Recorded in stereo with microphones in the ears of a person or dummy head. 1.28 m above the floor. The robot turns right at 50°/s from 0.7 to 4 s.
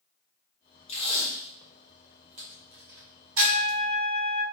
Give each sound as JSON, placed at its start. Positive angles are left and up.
{"t": 0.9, "sound": "tape being pulled", "side_deg": 35, "distance_m": 0.7}
{"t": 3.4, "sound": "a trumpet", "azimuth_deg": 40, "distance_m": 0.6}